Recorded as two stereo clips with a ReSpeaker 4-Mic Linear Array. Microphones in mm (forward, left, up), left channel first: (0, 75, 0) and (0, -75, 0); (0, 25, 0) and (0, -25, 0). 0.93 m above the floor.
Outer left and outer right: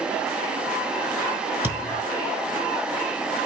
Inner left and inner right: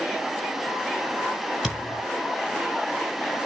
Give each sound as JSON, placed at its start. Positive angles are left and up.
{"t": 1.6, "sound": "a thud", "side_deg": -10, "distance_m": 6.0}